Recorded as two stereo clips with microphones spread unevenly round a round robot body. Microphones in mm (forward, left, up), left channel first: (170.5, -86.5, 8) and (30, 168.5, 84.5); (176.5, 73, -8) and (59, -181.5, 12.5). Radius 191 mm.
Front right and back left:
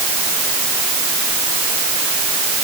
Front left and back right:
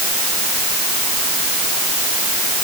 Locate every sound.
Only background noise.